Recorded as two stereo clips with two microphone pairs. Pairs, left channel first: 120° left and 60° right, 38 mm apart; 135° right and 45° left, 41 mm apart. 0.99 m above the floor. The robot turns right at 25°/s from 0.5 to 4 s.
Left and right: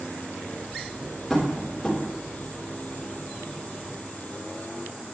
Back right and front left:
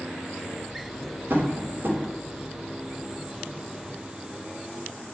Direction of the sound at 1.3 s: 25° left.